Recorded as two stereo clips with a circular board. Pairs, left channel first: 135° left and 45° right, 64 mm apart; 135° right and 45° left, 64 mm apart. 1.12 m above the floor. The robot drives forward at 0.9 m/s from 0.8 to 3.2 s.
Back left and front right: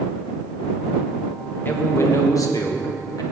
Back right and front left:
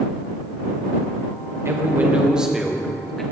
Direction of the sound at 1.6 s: 80° left.